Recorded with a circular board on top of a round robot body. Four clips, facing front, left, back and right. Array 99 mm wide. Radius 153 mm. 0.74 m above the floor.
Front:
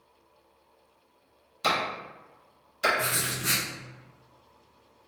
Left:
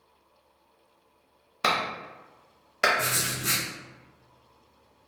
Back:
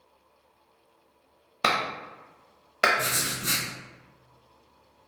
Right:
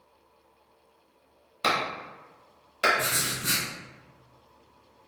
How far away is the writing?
About 1.3 m.